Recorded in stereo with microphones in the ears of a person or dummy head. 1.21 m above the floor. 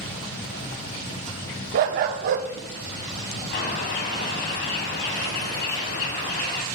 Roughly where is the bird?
Left.